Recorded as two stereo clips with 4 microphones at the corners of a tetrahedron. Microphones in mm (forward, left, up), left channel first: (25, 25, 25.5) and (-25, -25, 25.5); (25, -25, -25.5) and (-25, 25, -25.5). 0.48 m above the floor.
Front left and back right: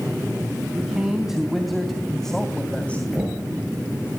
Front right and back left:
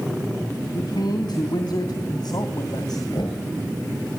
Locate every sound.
0.7 s a man speaking: 55° right, 3 m; by 3.0 s 25° right, 2.5 m
3.1 s knocking: 60° right, 6.5 m